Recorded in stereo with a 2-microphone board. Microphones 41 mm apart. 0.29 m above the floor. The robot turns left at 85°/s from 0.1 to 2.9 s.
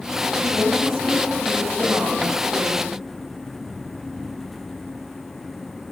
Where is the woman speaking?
110° left, 10 m; by 2.9 s 100° right, 10 m.